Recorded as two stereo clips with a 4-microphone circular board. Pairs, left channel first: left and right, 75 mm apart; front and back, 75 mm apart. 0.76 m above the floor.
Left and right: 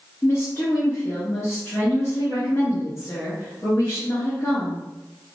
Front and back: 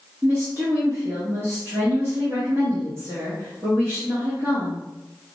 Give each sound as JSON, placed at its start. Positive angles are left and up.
{"t": 0.2, "sound": "a woman speaking", "azimuth_deg": 130, "distance_m": 1.1}